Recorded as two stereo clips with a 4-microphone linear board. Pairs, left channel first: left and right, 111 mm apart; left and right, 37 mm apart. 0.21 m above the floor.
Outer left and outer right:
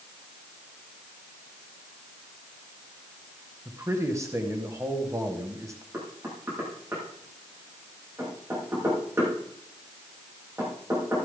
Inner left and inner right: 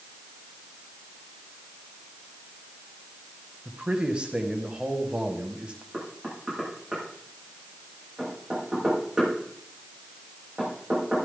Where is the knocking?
25° right (ahead or behind), 7.5 m.